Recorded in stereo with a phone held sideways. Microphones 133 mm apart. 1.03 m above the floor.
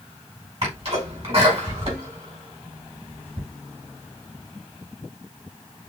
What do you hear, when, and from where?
0.6 s a sneeze: 50° right (ahead or behind), 4.5 m